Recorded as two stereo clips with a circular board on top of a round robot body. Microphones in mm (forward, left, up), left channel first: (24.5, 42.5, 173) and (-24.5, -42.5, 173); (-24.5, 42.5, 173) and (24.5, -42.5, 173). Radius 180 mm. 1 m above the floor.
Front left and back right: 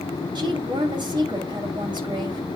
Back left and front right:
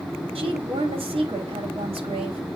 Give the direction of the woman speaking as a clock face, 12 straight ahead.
3 o'clock.